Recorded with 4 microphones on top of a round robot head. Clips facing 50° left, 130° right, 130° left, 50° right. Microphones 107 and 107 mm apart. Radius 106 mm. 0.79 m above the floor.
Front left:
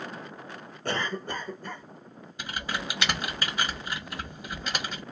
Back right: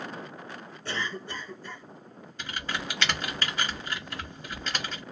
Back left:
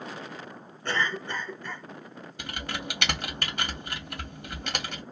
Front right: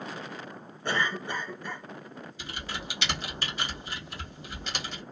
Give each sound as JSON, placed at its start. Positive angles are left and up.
{"t": 0.8, "sound": "a cough", "azimuth_deg": 25, "distance_m": 1.1}
{"t": 2.4, "sound": "typing on a keyboard", "azimuth_deg": 125, "distance_m": 1.4}